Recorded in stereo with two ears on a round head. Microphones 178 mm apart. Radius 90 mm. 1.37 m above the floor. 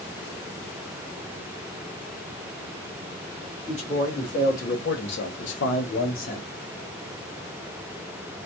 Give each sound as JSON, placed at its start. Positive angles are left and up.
{"t": 3.7, "sound": "a man speaking", "side_deg": 35, "distance_m": 1.6}